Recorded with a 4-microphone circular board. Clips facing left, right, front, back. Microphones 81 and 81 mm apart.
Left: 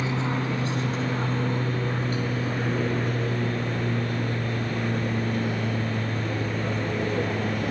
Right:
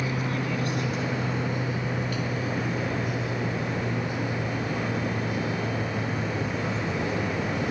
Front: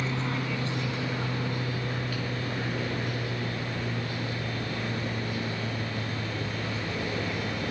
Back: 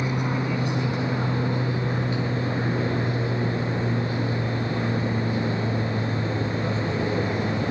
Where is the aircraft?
120° left.